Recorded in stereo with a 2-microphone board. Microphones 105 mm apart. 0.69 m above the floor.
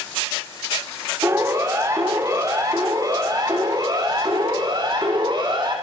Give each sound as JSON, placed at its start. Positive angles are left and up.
{"t": 1.2, "sound": "a siren", "side_deg": -30, "distance_m": 6.0}